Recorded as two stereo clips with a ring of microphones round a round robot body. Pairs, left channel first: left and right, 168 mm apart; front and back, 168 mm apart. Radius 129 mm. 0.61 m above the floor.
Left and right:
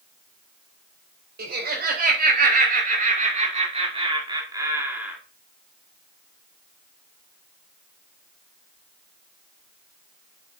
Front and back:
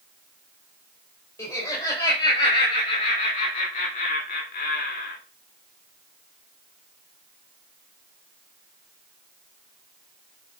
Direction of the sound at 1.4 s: 75° right.